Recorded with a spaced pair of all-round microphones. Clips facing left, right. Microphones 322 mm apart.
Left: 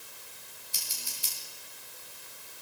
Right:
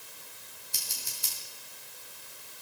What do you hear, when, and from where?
0.7 s scissors: 60° right (ahead or behind), 5 m